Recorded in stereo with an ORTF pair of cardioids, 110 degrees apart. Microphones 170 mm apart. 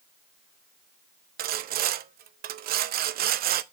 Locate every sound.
1.4 s sawing: 60° right, 0.6 m